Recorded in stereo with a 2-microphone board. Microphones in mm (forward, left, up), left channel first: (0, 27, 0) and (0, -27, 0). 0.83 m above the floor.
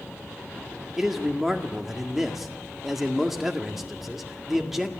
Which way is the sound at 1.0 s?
5° right (ahead or behind).